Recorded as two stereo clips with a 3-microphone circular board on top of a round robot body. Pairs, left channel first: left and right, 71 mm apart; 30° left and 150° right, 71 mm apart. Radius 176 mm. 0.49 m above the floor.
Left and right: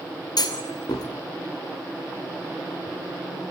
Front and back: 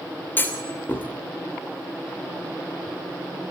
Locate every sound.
0.4 s a clunk: 90° left, 2.5 m